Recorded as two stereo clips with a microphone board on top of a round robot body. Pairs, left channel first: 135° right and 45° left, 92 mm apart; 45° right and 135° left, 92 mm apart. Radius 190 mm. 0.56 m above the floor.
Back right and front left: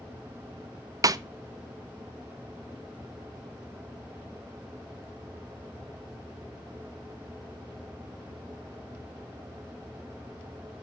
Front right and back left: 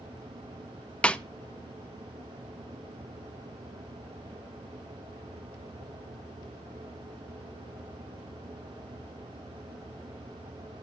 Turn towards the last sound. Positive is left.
turn(degrees=25)